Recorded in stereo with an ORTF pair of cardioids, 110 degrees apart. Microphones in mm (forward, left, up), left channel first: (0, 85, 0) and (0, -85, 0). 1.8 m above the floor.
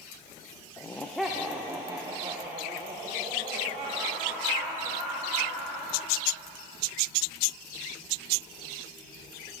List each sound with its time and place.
0.8 s laughter: 20° left, 0.8 m; by 6.1 s 45° right, 4.5 m